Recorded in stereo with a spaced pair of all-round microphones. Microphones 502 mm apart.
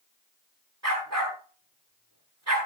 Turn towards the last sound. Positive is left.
turn(degrees=-30)  # may be behind; listen again after turning